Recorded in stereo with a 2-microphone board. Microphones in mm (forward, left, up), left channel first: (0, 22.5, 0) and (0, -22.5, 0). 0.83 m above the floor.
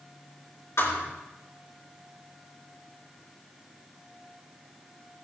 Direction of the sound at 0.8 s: 75° left (ahead or behind).